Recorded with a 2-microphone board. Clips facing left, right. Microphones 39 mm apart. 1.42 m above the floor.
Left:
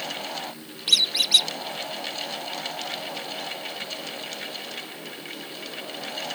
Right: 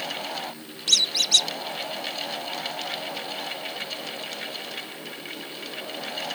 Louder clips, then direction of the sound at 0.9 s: Left 1 dB; 15° left (ahead or behind).